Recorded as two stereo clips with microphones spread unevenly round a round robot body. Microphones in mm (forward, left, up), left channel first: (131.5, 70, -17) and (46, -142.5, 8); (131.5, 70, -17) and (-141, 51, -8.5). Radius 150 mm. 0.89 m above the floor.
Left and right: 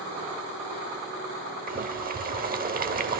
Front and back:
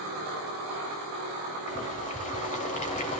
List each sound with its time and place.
1.7 s boiling: 65° right, 1.3 m